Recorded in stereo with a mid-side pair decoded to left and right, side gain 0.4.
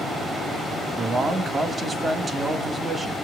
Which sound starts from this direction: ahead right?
A man speaking, at 1.0 s.